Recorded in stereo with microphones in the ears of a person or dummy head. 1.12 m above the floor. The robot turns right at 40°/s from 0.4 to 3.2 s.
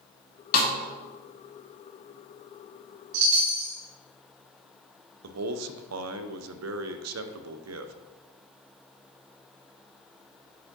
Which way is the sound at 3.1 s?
70° right (ahead or behind).